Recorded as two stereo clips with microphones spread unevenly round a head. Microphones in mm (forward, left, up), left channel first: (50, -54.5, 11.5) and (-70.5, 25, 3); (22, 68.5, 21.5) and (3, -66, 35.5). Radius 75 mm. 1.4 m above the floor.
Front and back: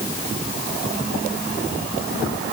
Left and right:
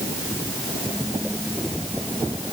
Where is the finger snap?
No finger snap in this recording.